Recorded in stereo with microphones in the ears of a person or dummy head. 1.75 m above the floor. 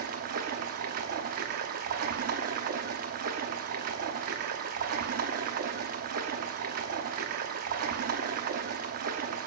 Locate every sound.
0.0 s running water: 55° right (ahead or behind), 0.7 m